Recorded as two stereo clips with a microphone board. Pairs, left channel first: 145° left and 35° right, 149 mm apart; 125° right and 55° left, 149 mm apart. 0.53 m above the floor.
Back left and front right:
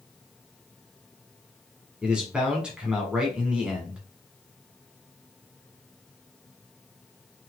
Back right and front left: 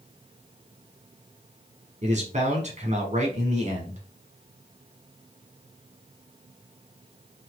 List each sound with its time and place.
2.0 s a man speaking: 45° left, 1.2 m